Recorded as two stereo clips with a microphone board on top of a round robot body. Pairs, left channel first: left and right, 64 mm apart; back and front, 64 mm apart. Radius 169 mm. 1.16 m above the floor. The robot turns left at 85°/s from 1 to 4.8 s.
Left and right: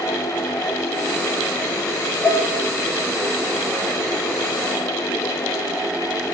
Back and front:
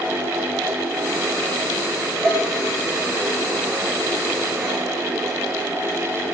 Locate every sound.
2.2 s dishes clattering: 65° right, 3.5 m; by 2.4 s 80° right, 3.5 m